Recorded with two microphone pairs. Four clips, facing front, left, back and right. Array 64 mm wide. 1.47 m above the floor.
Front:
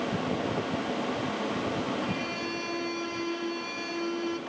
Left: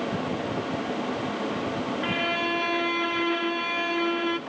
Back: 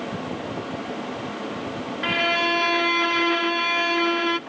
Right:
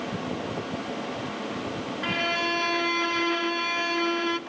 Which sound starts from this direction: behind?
A violin, at 2.0 s.